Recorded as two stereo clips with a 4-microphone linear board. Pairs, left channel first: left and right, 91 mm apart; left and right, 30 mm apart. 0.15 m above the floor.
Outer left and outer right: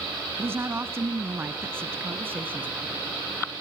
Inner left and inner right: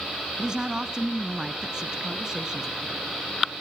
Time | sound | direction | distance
0.4 | a woman speaking | 25° right (ahead or behind) | 1.1 m